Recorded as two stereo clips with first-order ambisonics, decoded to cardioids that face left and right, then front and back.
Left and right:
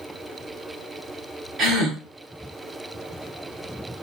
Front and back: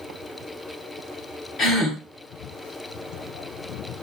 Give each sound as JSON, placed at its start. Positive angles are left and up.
{"t": 1.6, "sound": "a gasp", "azimuth_deg": -45, "distance_m": 1.2}